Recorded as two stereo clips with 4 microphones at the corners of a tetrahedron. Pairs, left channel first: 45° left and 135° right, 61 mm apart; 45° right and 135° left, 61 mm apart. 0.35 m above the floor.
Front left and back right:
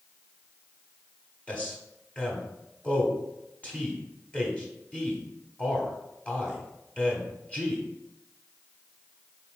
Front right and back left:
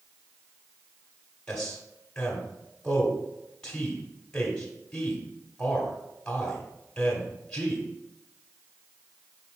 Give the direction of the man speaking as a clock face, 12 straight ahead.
12 o'clock.